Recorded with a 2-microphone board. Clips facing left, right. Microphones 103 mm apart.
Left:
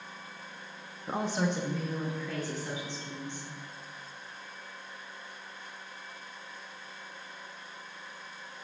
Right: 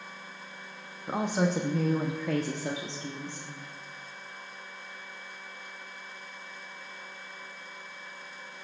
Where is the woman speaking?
5° right (ahead or behind), 0.6 m; by 3.5 s 80° right, 1.4 m.